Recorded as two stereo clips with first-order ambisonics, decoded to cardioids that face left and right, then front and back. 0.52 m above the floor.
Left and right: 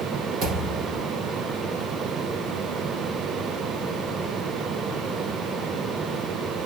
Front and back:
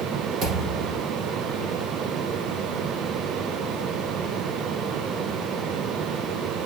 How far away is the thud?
About 6 m.